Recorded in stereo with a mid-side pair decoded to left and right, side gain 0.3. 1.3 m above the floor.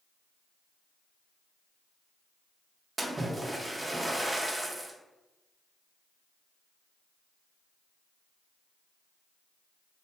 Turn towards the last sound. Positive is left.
turn(degrees=-30)